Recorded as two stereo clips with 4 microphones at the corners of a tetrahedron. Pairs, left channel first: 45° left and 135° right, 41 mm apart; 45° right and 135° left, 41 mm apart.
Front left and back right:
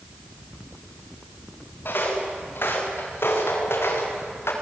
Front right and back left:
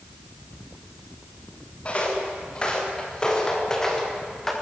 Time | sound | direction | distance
1.9 | footsteps | 15° left | 8 m